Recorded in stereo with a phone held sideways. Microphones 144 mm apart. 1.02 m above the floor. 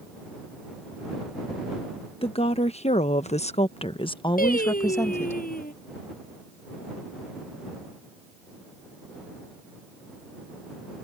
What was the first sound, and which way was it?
A woman speaking, 40° left (ahead or behind).